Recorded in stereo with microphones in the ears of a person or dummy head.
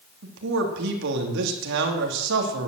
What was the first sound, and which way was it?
A man speaking, 70° right (ahead or behind).